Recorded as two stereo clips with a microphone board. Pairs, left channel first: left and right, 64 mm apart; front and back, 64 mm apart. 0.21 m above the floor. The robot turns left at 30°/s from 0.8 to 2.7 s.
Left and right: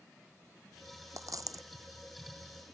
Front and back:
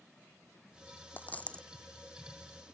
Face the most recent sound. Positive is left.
turn(degrees=-105)